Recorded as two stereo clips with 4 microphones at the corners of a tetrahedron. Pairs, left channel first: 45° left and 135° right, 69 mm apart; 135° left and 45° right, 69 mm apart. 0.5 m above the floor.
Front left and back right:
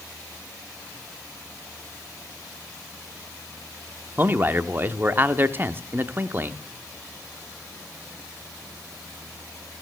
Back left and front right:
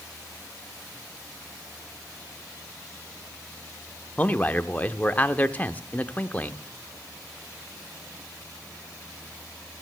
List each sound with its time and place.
4.2 s a man speaking: 175° right, 0.8 m